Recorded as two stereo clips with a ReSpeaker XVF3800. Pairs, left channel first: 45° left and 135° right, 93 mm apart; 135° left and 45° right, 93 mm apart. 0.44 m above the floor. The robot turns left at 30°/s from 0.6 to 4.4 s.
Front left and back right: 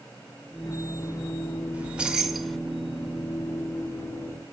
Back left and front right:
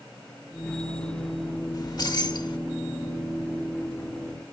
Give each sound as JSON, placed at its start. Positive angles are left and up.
{"t": 1.7, "sound": "keys jangling", "azimuth_deg": 155, "distance_m": 1.2}